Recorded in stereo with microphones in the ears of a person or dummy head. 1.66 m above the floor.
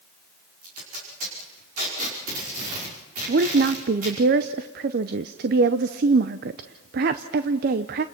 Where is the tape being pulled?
40° right (ahead or behind), 5.5 m.